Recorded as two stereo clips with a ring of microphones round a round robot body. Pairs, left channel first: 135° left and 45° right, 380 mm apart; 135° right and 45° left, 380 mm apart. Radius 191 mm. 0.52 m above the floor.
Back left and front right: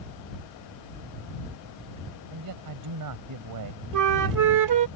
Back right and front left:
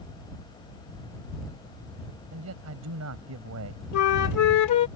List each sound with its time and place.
2.3 s a man speaking: 5° right
3.9 s a flute: 90° right